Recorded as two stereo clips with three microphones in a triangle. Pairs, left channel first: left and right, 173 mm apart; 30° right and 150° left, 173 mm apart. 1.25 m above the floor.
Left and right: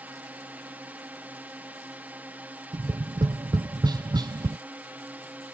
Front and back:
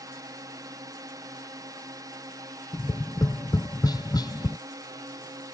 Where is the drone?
160° right.